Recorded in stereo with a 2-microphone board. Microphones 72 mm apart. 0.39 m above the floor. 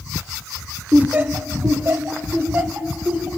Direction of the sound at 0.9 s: 20° right (ahead or behind).